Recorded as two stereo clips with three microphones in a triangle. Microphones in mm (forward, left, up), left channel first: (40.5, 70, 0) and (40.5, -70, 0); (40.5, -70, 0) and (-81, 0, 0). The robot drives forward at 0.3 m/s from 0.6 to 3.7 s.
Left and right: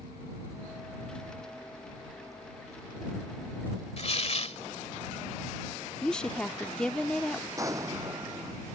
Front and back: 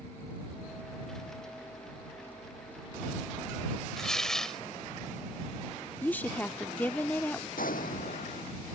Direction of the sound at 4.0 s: 55° left.